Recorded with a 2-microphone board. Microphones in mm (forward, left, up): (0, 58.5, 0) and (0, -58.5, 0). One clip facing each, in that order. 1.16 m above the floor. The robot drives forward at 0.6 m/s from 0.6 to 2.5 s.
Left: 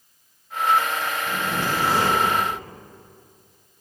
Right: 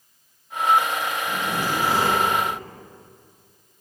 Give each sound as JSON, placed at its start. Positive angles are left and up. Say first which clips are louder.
{"t": 1.3, "sound": "a zipper", "louder": "left 1 dB", "side_deg": 85, "distance_m": 4.5}